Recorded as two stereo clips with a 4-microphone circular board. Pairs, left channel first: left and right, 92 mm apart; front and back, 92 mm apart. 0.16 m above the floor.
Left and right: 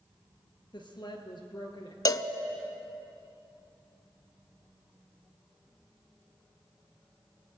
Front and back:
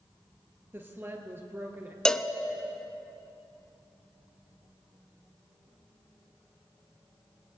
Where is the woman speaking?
120° left, 2.5 m.